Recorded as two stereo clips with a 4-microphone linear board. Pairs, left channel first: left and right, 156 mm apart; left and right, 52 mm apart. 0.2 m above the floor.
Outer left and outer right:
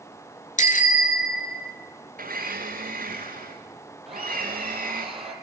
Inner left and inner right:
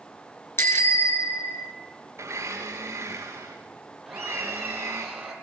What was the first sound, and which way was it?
A bicycle bell, 55° left (ahead or behind).